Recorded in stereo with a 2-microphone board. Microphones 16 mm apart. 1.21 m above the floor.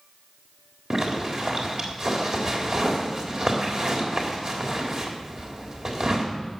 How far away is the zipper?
About 3.5 m.